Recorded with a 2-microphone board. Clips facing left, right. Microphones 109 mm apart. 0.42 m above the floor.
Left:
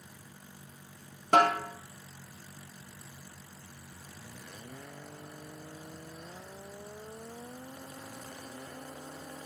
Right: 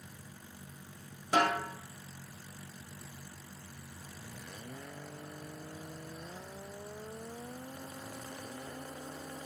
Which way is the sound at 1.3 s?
60° left (ahead or behind).